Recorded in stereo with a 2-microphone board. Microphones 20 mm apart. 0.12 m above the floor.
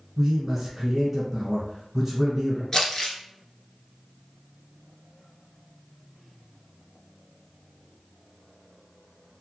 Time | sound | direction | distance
0.2 | a man speaking | 20° right (ahead or behind) | 1.5 m
2.7 | crumpling | 25° left (ahead or behind) | 0.8 m